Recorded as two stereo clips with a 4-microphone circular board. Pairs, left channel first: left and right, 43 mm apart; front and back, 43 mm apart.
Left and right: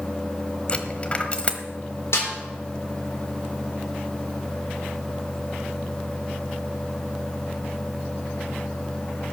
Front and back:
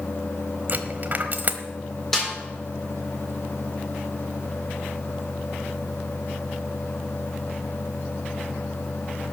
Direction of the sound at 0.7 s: 145° left.